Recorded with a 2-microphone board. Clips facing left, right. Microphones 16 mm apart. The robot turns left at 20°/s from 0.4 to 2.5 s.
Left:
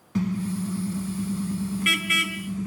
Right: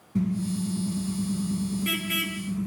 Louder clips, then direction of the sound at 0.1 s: Even; 70° left.